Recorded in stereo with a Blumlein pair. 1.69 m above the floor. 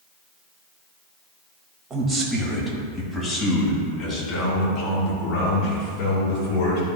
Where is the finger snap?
No finger snap in this recording.